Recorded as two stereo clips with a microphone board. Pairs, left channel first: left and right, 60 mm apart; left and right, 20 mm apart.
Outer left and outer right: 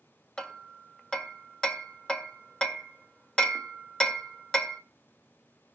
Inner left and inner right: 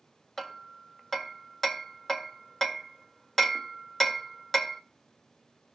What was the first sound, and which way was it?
Hammering, 15° left (ahead or behind).